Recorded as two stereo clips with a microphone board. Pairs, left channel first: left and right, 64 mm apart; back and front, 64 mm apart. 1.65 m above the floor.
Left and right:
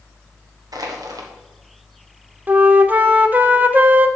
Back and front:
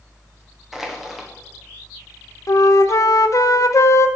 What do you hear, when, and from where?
0.7 s crushing: 85° right, 1.3 m
2.5 s a flute: 150° right, 0.6 m